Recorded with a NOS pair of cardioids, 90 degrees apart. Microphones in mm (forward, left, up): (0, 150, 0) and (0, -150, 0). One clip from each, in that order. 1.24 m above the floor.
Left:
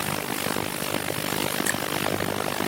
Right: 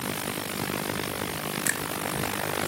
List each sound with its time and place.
1.6 s a finger snap: 15° right